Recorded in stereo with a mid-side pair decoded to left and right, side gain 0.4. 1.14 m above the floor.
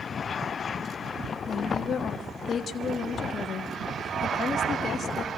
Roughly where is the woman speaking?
Ahead left.